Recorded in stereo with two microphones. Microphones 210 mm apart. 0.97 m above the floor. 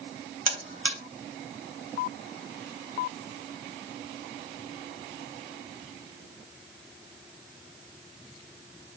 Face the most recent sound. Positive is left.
turn(degrees=-75)  # may be behind; listen again after turning